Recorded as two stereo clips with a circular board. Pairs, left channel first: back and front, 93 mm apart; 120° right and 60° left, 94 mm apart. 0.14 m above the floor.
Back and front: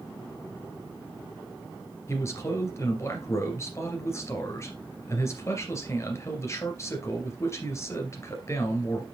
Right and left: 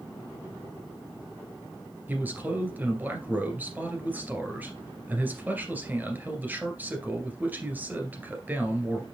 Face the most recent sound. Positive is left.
turn(degrees=125)